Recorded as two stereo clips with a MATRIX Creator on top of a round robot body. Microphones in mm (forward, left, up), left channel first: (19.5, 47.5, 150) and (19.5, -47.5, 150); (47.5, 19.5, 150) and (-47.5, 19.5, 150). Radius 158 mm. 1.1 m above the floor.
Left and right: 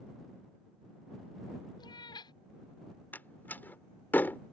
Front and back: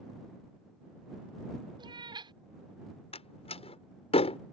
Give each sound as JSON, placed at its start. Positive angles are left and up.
{"t": 1.8, "sound": "a cat meowing", "azimuth_deg": 140}
{"t": 3.1, "sound": "a door slam", "azimuth_deg": 15}